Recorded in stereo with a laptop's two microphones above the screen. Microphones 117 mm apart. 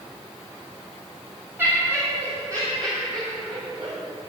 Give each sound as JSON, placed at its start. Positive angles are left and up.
{"t": 1.6, "sound": "laughter", "side_deg": -20, "distance_m": 2.0}